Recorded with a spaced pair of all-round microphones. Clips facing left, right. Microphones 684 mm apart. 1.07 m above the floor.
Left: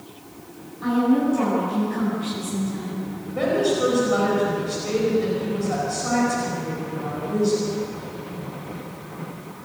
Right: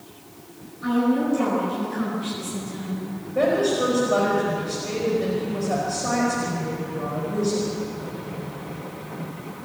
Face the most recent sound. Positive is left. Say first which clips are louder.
# even
turn(degrees=-5)  # may be behind; listen again after turning